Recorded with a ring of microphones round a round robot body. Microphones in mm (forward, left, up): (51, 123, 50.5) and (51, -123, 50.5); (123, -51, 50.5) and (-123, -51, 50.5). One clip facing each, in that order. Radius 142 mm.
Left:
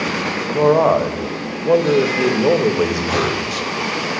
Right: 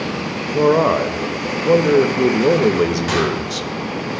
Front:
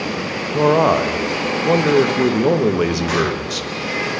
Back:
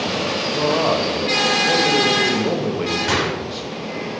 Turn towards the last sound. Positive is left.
turn(degrees=-140)